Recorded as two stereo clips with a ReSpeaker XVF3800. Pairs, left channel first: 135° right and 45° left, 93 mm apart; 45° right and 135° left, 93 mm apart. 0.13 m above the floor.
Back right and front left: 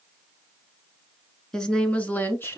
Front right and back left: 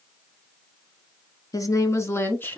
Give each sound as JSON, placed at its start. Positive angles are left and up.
{"t": 1.5, "sound": "a woman speaking", "azimuth_deg": -55, "distance_m": 1.3}